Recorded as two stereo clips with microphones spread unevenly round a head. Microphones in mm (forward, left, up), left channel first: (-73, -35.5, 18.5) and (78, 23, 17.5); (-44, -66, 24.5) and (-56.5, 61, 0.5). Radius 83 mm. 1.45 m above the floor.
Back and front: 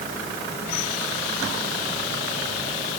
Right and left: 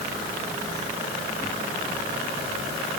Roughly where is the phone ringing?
I don't hear a phone ringing.